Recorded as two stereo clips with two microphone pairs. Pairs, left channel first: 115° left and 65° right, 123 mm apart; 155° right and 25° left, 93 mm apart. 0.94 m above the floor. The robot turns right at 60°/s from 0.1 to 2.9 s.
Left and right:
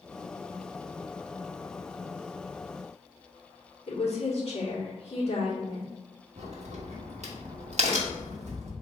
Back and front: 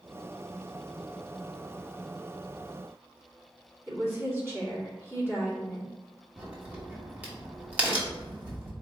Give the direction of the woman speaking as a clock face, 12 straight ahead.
9 o'clock.